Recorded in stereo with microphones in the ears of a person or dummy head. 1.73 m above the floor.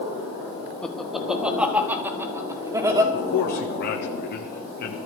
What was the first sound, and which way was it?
Laughter, 5° left (ahead or behind).